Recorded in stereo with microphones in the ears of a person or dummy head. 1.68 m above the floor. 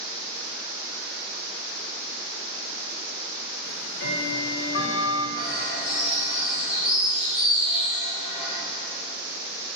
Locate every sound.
3.6 s ticking: 70° left (ahead or behind), 1.5 m
5.4 s a bird: 50° left (ahead or behind), 4.5 m